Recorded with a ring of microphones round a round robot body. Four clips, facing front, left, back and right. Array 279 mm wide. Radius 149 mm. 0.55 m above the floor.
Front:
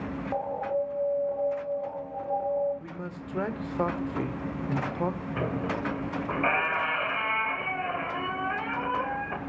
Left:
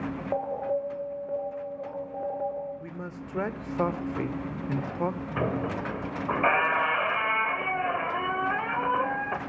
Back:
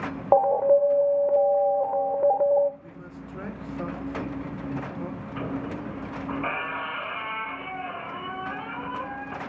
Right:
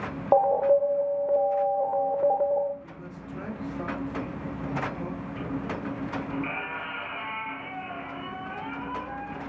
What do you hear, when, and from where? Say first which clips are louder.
0.3 s an alarm: right 10 dB, back 12 dB; 150° right, 2.5 m
2.8 s a man speaking: left 3 dB, front 3 dB; 55° left, 2 m
5.4 s a squeak: left 4 dB, even; 75° left, 2 m